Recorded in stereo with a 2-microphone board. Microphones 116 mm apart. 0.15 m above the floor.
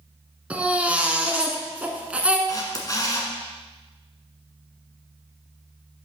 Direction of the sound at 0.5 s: 10° right (ahead or behind).